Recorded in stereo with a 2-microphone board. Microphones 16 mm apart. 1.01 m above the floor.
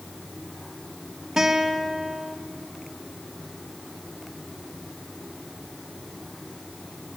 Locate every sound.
1.4 s a guitar: 35° right (ahead or behind), 2.5 m